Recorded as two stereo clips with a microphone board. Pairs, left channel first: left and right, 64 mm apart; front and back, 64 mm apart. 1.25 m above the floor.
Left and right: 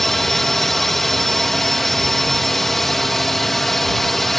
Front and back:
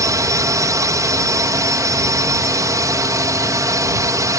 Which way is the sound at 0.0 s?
175° left.